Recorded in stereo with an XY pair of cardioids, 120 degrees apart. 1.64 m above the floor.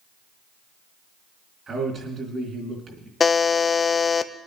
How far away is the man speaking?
About 4 m.